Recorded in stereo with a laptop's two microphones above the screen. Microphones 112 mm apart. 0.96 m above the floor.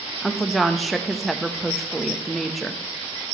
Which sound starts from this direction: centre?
A woman speaking, at 0.2 s.